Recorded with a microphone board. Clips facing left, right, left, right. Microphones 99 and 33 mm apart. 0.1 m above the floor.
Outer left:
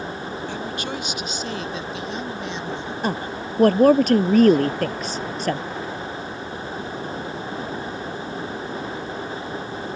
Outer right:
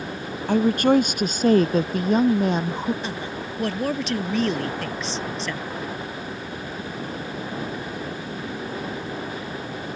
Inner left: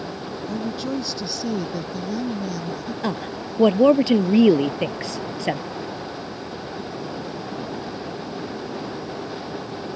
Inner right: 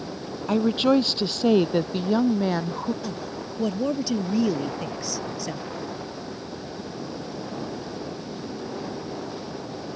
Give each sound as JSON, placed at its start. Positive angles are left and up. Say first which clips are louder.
{"t": 0.5, "sound": "a woman speaking", "louder": "outer right 16 dB, inner right 8 dB", "side_deg": -55}
{"t": 3.0, "sound": "a woman speaking", "louder": "outer left 4 dB, inner left 5 dB", "side_deg": 45}